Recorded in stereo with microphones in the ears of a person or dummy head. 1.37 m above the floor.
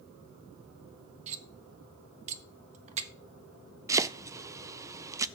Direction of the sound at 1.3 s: 40° right (ahead or behind).